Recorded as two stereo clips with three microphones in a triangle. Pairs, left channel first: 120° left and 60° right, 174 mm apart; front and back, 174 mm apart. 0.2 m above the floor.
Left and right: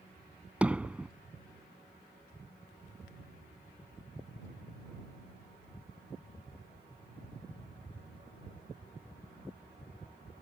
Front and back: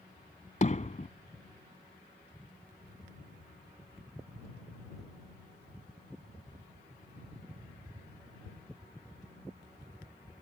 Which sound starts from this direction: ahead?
Hammering, at 0.6 s.